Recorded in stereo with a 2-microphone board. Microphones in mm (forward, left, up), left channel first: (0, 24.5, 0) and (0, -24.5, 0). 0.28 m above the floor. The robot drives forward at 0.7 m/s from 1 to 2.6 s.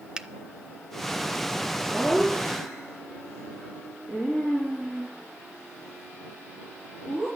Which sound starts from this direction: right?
Laughter, at 1.9 s.